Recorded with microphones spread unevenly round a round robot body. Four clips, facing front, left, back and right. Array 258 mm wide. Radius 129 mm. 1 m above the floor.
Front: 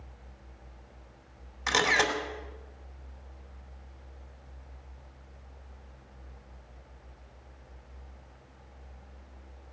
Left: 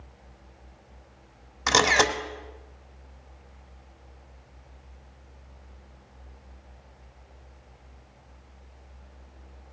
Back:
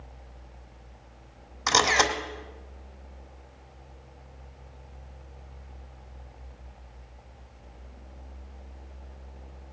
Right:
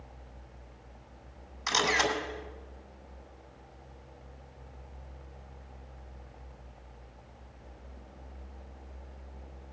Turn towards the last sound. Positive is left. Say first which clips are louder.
# left 7 dB, back 4 dB
turn(degrees=105)